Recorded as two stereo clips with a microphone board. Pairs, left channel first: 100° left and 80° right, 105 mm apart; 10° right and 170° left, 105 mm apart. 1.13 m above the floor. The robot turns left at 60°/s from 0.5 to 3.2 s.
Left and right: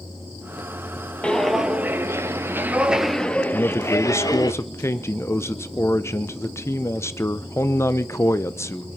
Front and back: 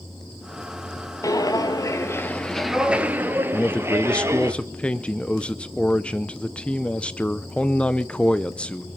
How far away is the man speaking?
About 0.8 m.